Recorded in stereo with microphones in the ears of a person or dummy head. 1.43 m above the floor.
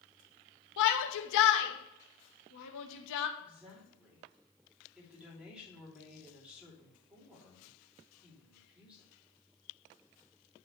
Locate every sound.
0.8 s a shout: 65° left (ahead or behind), 1.1 m
3.4 s a woman speaking: 10° right (ahead or behind), 3 m